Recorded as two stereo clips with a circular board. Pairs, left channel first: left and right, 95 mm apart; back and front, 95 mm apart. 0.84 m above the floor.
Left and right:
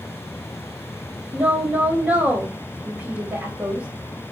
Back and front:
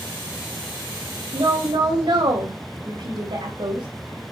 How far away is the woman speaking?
About 4 m.